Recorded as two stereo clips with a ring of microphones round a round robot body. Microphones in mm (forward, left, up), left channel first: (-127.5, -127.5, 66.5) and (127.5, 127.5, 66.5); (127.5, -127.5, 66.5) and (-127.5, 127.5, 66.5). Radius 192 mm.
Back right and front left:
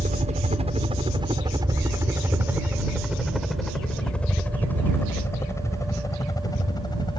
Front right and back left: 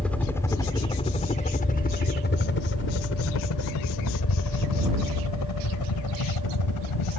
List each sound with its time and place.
0.0 s a helicopter: 35° left; by 7.2 s 60° right